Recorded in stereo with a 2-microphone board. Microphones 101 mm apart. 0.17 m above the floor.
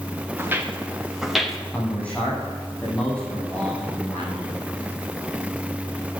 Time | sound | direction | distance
0.4 | footsteps | 20° right (ahead or behind) | 2.5 m
1.7 | a man speaking | 15° left (ahead or behind) | 7.5 m